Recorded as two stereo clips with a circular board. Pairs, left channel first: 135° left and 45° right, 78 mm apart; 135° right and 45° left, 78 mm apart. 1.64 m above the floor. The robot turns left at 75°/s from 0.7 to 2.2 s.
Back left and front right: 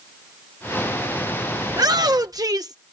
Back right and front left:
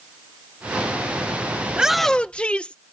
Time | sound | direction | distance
1.7 | a shout | 25° right | ?